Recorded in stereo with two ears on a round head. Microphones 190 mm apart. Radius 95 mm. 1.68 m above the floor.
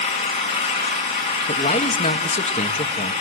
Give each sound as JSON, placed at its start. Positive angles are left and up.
{"t": 0.0, "sound": "an engine running", "side_deg": 30, "distance_m": 7.5}
{"t": 1.5, "sound": "a man speaking", "side_deg": 35, "distance_m": 1.3}